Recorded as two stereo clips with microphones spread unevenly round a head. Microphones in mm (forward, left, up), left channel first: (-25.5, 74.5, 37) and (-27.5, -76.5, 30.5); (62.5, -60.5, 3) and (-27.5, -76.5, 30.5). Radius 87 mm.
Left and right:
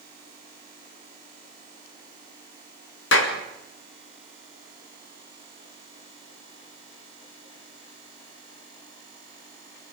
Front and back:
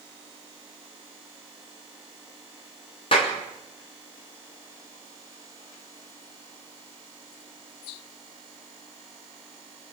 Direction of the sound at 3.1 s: 70° left.